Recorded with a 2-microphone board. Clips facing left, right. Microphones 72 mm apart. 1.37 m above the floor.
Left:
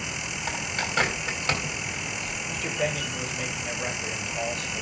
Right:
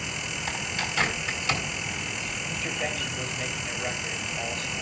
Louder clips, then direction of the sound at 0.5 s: Left 2 dB; 55° left (ahead or behind).